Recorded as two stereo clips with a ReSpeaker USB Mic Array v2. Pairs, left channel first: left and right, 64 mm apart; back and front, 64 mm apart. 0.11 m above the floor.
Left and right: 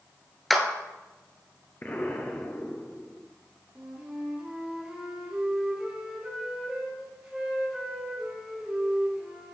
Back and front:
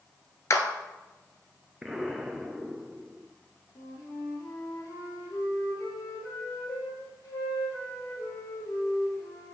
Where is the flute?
165° right, 4 m.